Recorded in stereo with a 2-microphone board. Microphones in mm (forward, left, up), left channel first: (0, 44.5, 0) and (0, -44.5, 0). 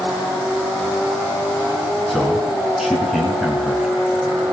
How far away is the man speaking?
About 4 m.